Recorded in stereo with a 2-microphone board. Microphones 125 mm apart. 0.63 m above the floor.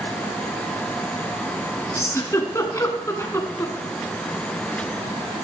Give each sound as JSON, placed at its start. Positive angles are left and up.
{"t": 1.9, "sound": "a giggle", "side_deg": 25, "distance_m": 2.0}